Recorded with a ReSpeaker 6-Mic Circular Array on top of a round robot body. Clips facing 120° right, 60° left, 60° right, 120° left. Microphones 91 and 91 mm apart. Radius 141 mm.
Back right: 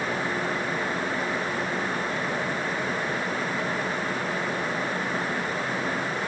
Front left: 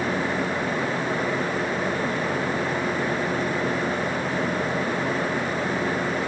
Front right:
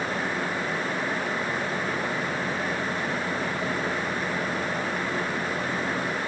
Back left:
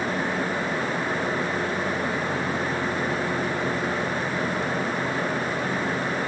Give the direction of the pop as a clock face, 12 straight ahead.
No pop in this recording.